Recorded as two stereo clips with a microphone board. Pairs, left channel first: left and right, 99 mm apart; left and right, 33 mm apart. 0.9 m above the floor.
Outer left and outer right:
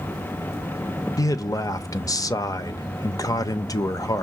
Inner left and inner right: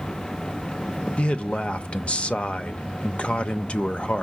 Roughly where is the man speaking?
Left.